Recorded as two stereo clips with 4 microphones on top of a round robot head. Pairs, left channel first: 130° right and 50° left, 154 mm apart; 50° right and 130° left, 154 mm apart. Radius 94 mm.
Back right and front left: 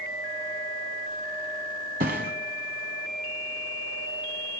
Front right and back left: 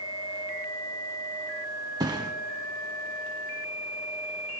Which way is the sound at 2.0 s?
65° left.